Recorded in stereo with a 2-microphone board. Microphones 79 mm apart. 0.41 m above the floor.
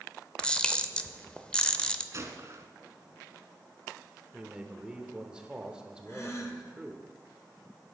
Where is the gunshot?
45° right (ahead or behind), 1.0 m.